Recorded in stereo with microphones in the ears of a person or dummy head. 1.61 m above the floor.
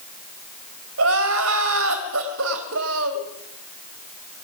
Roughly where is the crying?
Right.